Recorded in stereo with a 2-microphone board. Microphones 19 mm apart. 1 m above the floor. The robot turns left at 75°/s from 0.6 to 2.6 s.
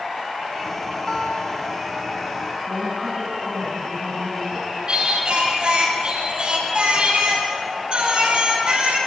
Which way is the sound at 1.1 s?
150° left.